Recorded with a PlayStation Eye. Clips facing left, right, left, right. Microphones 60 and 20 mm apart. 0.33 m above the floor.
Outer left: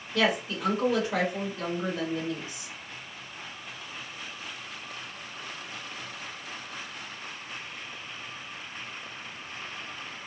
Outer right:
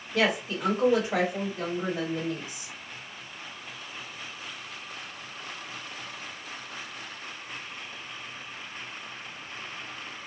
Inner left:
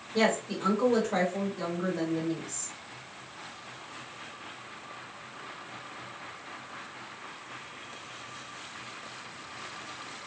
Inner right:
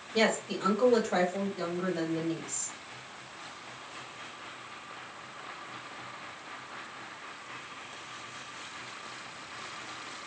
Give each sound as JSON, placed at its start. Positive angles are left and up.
{"t": 0.1, "sound": "a woman speaking", "side_deg": -25, "distance_m": 1.7}